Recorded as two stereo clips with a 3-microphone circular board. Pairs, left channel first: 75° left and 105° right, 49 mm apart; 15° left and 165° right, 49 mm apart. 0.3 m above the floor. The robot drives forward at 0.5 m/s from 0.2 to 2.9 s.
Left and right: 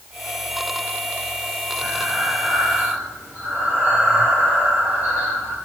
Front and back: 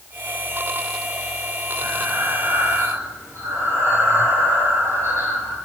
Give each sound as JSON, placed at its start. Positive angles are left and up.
{"t": 1.8, "sound": "breathing", "azimuth_deg": -160, "distance_m": 5.5}